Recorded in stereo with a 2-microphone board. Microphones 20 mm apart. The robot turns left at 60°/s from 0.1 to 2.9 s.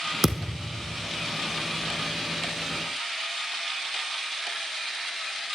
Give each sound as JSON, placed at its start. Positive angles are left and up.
{"t": 0.2, "sound": "a thud", "azimuth_deg": -10, "distance_m": 1.9}